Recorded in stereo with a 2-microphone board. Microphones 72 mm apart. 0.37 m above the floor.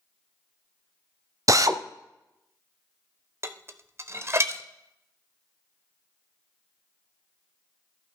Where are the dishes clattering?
40° right (ahead or behind), 0.7 m.